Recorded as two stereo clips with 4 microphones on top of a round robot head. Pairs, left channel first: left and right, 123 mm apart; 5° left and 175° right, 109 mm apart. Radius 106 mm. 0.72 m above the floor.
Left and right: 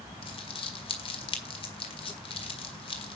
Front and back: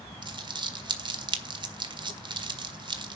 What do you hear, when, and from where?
0.2 s crumpling: 140° left, 1.7 m